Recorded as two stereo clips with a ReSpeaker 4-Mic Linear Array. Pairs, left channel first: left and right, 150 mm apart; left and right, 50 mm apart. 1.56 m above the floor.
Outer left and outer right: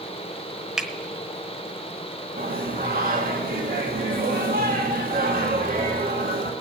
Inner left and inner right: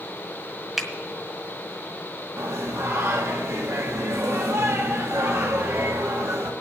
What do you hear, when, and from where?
0.8 s a finger snap: centre (ahead or behind), 1.1 m
2.4 s singing: 75° right (ahead or behind), 1.3 m